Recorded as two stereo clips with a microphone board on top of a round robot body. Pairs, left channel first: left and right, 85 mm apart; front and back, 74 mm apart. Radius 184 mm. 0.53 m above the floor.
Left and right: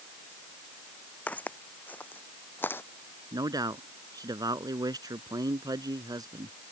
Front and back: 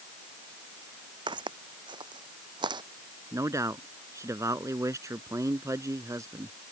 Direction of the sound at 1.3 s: 165° left.